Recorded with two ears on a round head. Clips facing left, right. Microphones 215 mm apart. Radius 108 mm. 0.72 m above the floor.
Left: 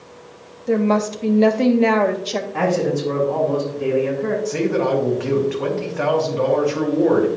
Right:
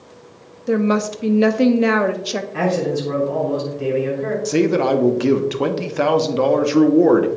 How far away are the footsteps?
I don't hear footsteps.